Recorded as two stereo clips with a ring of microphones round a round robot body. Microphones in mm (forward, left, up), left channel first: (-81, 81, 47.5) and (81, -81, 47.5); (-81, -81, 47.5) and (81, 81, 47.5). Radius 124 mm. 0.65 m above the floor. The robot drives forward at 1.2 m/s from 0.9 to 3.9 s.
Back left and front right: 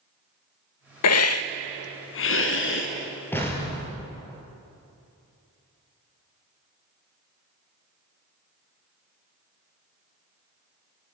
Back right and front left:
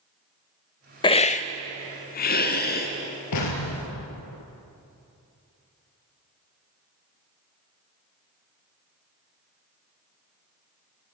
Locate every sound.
1.0 s a hiss: 155° left, 0.7 m; by 2.9 s 175° left, 3 m
3.3 s an explosion: 145° right, 4 m; by 4.4 s 150° right, 4.5 m